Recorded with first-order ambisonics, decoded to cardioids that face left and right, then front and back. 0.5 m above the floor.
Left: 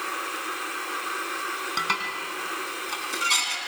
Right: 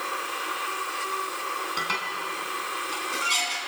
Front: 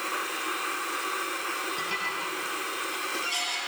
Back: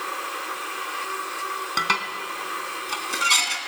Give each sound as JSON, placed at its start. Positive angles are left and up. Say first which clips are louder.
{"t": 1.8, "sound": "dishes clattering", "louder": "left 3 dB, back 6 dB", "azimuth_deg": 165, "distance_m": 3.0}